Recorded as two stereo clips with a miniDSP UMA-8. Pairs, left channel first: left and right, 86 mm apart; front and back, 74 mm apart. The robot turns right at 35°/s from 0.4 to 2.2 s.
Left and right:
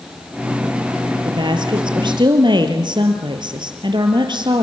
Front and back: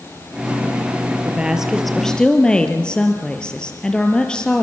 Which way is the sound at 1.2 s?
110° right.